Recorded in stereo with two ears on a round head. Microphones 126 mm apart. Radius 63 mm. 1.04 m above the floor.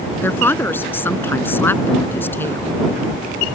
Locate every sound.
0.2 s a woman speaking: 15° left (ahead or behind)